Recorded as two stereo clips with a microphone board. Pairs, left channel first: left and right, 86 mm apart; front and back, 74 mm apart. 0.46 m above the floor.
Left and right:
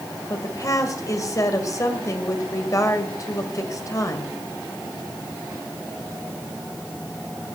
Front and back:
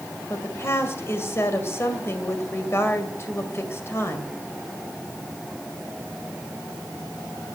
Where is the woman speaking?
50° left, 2 m.